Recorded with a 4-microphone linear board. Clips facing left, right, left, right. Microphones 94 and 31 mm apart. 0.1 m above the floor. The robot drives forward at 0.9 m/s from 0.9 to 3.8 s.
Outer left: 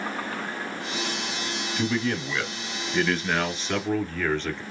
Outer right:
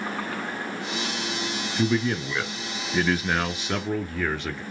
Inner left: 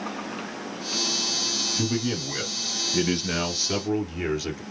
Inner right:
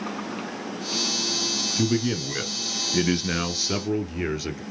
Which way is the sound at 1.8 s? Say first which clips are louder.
Outer right 3 dB, inner right 3 dB; 10° right (ahead or behind).